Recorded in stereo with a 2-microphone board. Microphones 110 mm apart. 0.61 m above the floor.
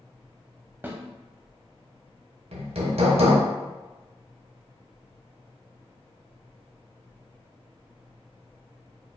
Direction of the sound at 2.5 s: 75° right (ahead or behind).